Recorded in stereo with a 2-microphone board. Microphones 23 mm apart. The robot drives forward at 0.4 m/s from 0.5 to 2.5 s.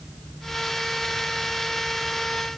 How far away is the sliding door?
No sliding door in this recording.